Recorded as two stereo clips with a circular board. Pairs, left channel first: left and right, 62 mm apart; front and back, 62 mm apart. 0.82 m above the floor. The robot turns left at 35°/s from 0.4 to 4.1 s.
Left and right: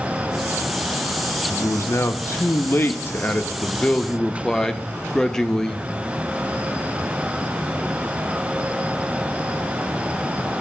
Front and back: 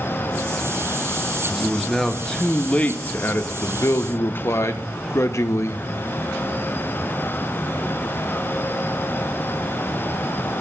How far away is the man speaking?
About 0.6 m.